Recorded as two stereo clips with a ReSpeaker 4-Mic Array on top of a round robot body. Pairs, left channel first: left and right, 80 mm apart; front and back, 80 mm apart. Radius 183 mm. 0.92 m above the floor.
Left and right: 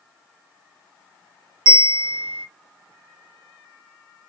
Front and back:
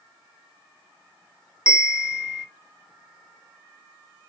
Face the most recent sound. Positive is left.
turn(degrees=-100)